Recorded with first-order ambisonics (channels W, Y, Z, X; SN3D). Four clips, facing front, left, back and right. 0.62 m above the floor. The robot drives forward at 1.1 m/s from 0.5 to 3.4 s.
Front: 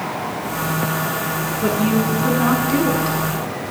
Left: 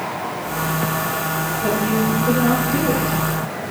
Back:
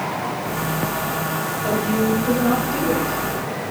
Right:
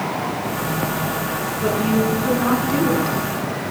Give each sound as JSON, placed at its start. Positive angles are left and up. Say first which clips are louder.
{"t": 1.6, "sound": "a woman speaking", "louder": "right 1 dB, front 2 dB", "azimuth_deg": -15, "distance_m": 6.5}